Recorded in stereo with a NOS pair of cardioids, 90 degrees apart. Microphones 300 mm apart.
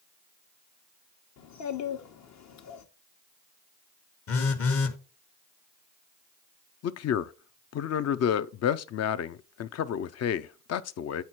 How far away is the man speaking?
About 0.6 m.